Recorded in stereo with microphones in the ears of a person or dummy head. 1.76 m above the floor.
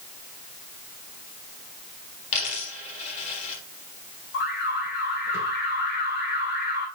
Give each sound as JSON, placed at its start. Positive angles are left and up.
{"t": 2.3, "sound": "a dropped coin", "side_deg": 35, "distance_m": 5.0}
{"t": 4.3, "sound": "an alarm", "side_deg": 50, "distance_m": 2.5}